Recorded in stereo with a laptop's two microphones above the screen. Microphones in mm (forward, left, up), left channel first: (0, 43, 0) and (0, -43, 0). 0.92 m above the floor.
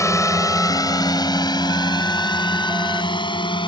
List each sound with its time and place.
0.0 s a drone: 40° left (ahead or behind); by 3.7 s 70° left (ahead or behind)